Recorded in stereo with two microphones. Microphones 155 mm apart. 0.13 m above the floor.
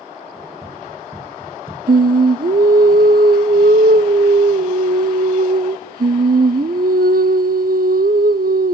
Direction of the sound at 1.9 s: 80° right.